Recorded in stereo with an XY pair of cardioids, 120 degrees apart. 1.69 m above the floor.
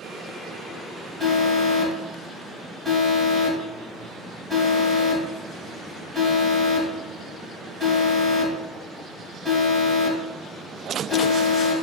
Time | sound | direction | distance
1.2 | an alarm | 10° right | 2 m